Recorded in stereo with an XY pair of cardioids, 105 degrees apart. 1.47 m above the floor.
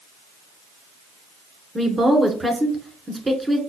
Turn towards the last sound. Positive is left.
turn(degrees=-15)